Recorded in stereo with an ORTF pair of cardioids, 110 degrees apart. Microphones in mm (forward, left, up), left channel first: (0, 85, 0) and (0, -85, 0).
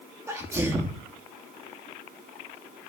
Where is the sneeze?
15° right, 1.5 m.